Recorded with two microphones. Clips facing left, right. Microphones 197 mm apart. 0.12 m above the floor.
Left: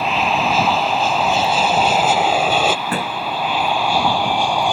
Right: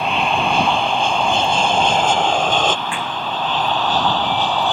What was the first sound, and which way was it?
An aircraft, centre (ahead or behind).